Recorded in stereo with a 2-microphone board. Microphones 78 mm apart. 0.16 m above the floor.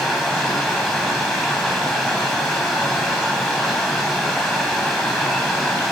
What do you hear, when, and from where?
0.0 s running water: 15° left (ahead or behind), 1.8 m